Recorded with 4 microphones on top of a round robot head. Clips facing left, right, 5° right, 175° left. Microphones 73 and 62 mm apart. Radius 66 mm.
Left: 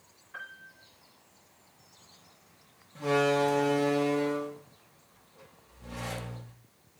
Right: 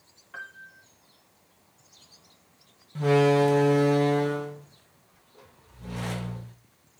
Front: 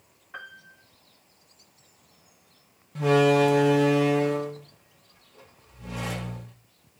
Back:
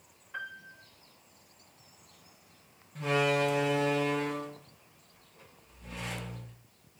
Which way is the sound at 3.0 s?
45° right.